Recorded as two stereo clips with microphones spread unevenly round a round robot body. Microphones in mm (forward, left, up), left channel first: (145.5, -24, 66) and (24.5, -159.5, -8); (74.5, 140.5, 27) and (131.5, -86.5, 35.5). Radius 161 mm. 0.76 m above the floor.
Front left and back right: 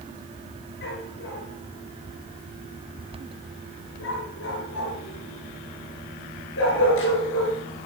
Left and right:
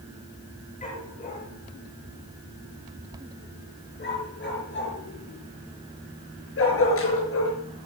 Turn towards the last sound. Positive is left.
turn(degrees=80)